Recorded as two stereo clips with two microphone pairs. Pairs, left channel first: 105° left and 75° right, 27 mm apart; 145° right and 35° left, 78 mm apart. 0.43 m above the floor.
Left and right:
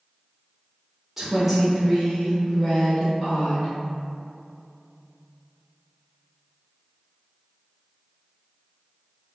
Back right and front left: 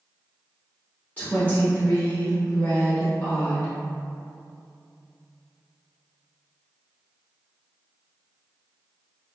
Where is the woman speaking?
150° right, 0.8 m; by 3.7 s 155° left, 1.8 m.